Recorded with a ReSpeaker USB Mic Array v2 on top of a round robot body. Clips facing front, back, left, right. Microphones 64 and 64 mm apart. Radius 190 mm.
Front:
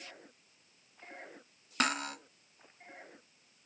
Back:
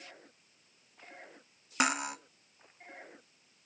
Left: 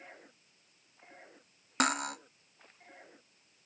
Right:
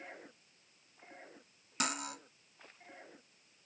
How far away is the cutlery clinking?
About 0.5 m.